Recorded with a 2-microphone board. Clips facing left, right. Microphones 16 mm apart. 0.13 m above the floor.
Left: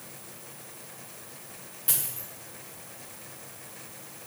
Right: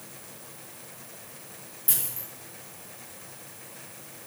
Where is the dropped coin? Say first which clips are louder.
Even; 20° left (ahead or behind), 4.5 m.